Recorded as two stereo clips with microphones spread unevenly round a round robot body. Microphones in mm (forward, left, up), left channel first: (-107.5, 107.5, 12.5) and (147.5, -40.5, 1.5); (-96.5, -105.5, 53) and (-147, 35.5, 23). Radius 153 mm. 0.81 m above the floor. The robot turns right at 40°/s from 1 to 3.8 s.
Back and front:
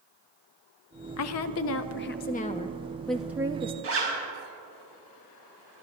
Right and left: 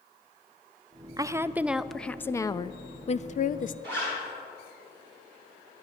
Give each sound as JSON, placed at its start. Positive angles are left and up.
{"t": 1.2, "sound": "a woman speaking", "azimuth_deg": 160, "distance_m": 0.6}
{"t": 3.8, "sound": "a zipper", "azimuth_deg": 15, "distance_m": 4.0}